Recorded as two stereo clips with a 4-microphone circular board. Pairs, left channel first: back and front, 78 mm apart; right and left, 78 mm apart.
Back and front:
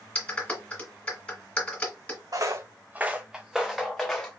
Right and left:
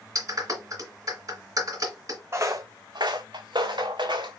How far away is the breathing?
No breathing in this recording.